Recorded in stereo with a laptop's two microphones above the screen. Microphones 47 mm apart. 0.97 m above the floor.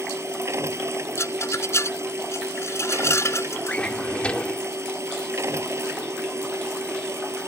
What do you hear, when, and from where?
0.0 s a machine running: 85° right
1.2 s a rattle: 85° left
3.7 s a drawer: 25° left (ahead or behind)